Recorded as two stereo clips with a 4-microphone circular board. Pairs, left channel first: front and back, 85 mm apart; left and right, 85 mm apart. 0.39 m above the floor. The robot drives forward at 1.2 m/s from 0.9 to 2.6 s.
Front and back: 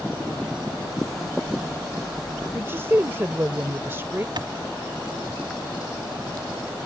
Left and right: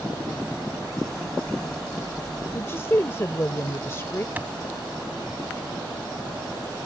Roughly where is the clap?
Behind right.